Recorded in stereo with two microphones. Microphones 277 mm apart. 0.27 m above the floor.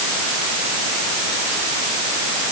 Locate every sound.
Only background noise.